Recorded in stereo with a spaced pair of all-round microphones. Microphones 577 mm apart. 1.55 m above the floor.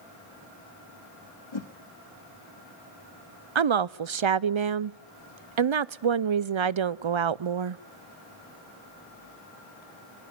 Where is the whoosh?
50° left (ahead or behind), 1.6 m.